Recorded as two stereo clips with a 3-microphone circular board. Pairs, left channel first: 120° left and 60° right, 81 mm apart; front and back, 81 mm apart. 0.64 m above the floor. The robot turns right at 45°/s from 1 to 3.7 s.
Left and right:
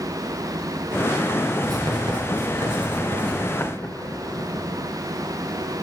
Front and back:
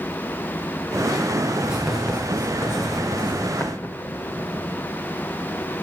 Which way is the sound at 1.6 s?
105° right.